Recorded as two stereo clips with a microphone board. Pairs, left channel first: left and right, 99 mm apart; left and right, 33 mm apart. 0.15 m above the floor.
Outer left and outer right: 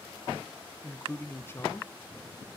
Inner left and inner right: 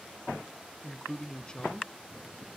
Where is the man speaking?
25° left (ahead or behind), 1.1 m.